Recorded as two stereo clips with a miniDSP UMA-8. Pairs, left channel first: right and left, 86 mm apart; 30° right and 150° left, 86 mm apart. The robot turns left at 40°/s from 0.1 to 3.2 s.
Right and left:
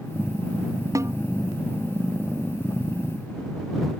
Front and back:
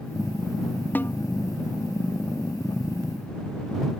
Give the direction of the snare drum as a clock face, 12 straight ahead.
11 o'clock.